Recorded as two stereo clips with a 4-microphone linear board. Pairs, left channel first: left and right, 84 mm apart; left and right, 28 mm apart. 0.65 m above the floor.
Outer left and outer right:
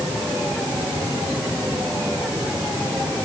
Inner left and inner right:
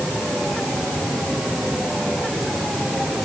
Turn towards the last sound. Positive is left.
No sound to turn to.